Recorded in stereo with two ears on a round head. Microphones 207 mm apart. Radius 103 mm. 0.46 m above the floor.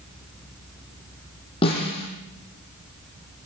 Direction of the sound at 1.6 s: 25° left (ahead or behind).